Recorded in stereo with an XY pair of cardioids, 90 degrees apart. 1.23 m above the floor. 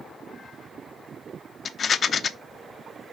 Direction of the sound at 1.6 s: 50° left.